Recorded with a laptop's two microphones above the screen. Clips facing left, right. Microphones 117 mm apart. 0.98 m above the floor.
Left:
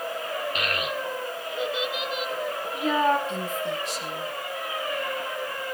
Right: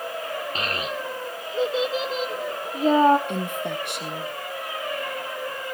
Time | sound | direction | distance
0.6 | a child speaking | 30° right (ahead or behind) | 1.2 m
3.3 | a woman speaking | 60° right (ahead or behind) | 1.5 m